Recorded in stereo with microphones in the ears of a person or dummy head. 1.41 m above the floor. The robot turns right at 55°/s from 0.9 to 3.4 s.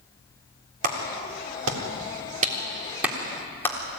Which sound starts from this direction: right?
A clap, at 0.8 s.